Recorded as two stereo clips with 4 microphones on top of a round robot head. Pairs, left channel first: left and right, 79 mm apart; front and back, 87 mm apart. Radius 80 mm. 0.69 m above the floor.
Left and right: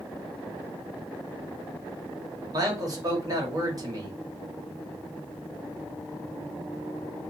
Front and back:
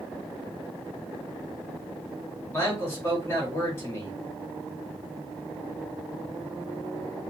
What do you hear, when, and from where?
2.5 s a man speaking: 60° right, 1.7 m